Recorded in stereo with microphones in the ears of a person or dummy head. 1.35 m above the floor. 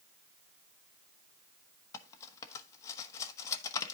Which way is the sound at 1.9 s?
25° left (ahead or behind).